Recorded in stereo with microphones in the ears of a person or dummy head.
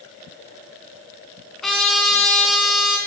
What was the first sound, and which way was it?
A trumpet, 5° left (ahead or behind).